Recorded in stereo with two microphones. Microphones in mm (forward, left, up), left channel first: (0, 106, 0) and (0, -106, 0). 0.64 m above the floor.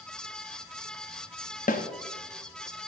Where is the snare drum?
40° left (ahead or behind), 0.7 m.